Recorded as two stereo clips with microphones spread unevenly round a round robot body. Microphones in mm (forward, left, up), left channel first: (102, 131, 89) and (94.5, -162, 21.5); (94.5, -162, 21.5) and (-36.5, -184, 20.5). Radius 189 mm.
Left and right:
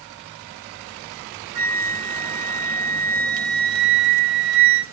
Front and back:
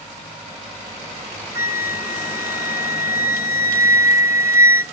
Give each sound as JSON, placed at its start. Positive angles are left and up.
{"t": 1.6, "sound": "a flute", "azimuth_deg": -95, "distance_m": 2.5}